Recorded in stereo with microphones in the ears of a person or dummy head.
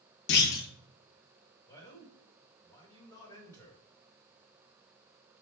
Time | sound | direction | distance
0.3 | a clunk | 60° left (ahead or behind) | 1.3 m
1.7 | a man speaking | 15° left (ahead or behind) | 1.8 m